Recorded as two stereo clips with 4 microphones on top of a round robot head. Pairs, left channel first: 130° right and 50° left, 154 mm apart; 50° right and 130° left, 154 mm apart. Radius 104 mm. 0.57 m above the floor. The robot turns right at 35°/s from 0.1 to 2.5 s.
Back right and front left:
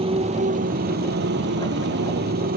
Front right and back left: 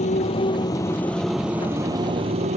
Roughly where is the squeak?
I don't hear a squeak.